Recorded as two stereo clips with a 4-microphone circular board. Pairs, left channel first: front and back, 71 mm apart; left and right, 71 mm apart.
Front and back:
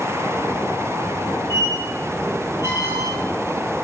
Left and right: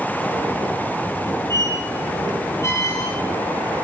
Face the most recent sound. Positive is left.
turn(degrees=130)